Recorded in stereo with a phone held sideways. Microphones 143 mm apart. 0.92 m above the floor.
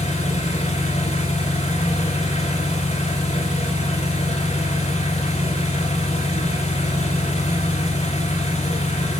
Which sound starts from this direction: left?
An engine running, at 0.0 s.